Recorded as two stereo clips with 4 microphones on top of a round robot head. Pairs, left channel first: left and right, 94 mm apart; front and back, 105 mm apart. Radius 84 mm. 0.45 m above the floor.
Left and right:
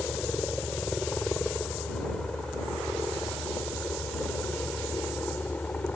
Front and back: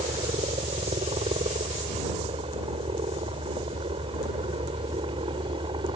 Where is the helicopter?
175° left; by 6.0 s 165° left.